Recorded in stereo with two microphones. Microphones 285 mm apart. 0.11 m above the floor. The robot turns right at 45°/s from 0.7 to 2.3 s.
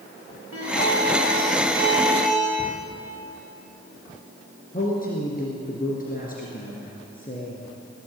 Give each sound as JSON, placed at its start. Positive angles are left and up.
{"t": 0.5, "sound": "a guitar", "azimuth_deg": -65, "distance_m": 7.0}
{"t": 2.6, "sound": "a cupboard door", "side_deg": 5, "distance_m": 4.0}
{"t": 4.7, "sound": "a man speaking", "side_deg": 35, "distance_m": 2.5}